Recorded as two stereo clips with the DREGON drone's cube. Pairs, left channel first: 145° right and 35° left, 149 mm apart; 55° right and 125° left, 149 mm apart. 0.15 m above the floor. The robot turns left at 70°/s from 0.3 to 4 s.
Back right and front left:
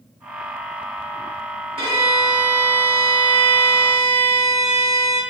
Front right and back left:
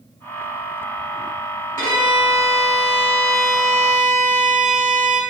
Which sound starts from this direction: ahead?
A violin, at 1.8 s.